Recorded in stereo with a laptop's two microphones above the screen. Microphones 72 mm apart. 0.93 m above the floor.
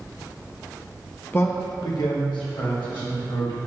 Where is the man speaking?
25° left (ahead or behind), 0.7 m; by 3.6 s 85° left, 2.5 m.